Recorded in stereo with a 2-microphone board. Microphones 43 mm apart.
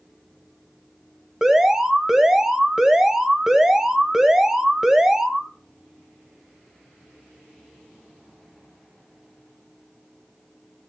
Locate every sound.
1.4 s an alarm: 10° right (ahead or behind), 1.5 m